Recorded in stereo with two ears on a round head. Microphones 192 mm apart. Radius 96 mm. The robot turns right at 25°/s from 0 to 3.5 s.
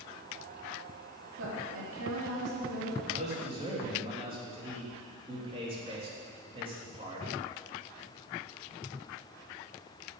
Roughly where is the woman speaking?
Behind right.